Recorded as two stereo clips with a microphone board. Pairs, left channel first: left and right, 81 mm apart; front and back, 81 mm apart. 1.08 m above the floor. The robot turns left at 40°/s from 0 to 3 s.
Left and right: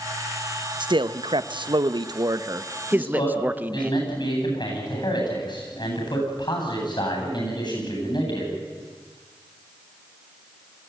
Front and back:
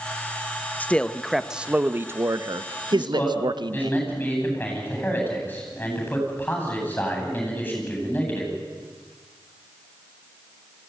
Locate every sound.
0.8 s a man speaking: 70° right, 0.8 m; by 3.9 s 160° right, 0.8 m
2.9 s a man speaking: 70° left, 9.5 m